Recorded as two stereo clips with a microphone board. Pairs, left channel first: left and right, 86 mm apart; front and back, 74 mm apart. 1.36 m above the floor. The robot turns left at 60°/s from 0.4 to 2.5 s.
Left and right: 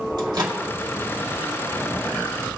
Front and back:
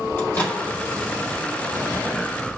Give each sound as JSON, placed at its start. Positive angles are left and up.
{"t": 0.2, "sound": "a microwave", "azimuth_deg": -60, "distance_m": 2.5}